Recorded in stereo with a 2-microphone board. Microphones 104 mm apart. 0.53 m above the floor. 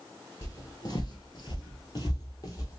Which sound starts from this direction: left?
Footsteps, at 0.4 s.